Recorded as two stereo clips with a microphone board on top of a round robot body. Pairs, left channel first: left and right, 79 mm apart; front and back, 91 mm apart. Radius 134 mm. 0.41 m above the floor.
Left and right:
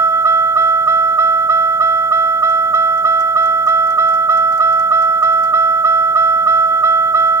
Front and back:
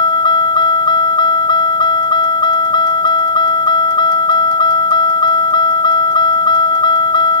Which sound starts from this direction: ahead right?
A vehicle, at 0.0 s.